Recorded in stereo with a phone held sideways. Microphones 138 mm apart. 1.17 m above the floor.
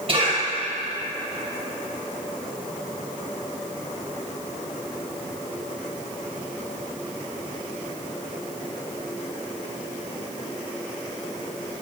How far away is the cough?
About 5 m.